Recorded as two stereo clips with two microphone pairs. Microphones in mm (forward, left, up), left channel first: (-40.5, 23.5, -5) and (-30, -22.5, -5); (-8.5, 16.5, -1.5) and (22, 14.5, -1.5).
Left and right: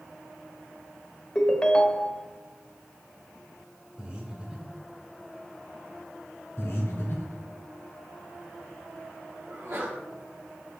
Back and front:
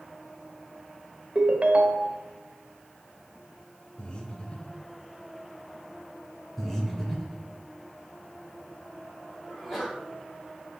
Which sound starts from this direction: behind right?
Breathing, at 4.0 s.